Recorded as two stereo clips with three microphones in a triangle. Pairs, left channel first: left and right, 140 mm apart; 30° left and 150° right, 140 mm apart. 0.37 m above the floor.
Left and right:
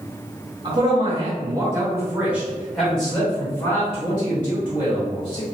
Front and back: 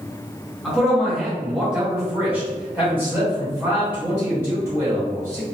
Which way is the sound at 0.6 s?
65° right.